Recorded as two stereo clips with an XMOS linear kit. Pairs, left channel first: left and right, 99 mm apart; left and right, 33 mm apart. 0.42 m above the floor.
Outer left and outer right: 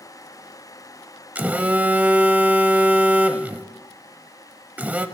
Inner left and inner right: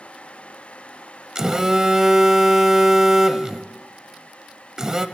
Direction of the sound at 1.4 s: 15° right (ahead or behind).